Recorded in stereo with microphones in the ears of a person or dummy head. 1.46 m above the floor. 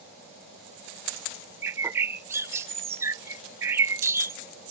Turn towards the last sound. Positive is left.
turn(degrees=-10)  # may be behind; listen again after turning